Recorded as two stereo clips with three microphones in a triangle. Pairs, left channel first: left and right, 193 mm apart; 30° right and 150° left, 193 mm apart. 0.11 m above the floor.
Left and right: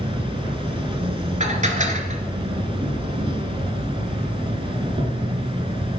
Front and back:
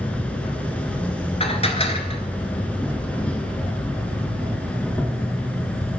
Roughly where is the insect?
Right.